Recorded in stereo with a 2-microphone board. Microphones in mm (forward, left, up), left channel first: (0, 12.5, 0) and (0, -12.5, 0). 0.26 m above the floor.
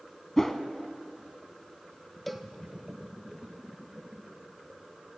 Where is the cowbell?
Centre (ahead or behind), 0.5 m.